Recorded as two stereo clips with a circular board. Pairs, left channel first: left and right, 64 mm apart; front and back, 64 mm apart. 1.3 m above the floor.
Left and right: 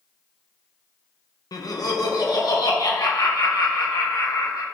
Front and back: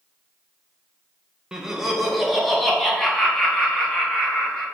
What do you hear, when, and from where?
1.5 s laughter: 100° left, 1.0 m; by 4.6 s 75° left, 2.5 m